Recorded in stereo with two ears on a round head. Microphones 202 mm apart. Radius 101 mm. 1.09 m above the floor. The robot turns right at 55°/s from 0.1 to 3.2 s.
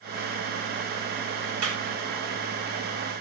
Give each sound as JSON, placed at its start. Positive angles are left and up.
{"t": 1.6, "sound": "a clap", "side_deg": -75, "distance_m": 4.5}